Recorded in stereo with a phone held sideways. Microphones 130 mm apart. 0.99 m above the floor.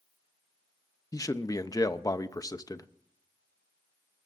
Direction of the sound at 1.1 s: 30° left (ahead or behind).